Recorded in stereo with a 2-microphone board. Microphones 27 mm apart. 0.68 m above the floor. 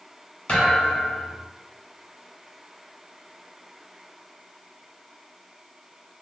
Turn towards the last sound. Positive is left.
turn(degrees=45)  # may be behind; listen again after turning